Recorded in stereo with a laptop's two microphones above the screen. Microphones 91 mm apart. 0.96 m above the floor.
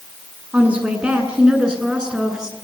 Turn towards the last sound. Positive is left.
turn(degrees=-5)  # may be behind; listen again after turning